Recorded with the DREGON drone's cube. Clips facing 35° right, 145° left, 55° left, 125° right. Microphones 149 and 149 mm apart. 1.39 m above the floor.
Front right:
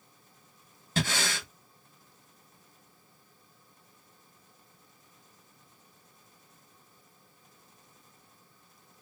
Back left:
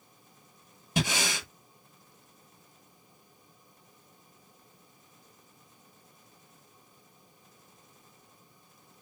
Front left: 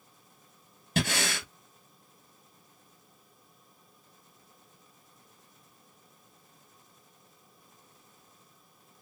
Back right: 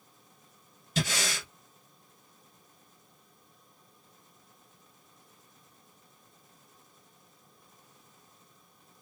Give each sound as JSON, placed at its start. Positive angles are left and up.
{"t": 1.0, "sound": "breathing", "azimuth_deg": 75, "distance_m": 0.9}